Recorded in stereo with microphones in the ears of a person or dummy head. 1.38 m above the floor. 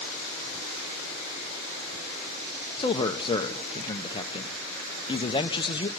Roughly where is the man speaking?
Centre.